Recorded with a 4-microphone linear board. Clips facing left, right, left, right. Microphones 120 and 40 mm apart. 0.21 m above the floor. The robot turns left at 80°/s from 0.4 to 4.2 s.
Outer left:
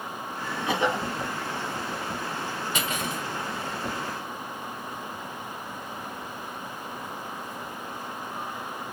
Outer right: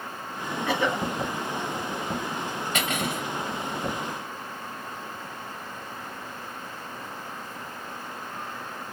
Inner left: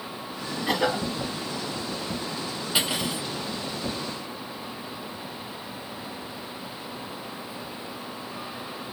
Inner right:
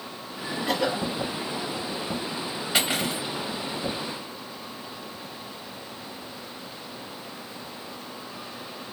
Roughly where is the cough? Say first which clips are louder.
Even, inner left 1 dB; behind left.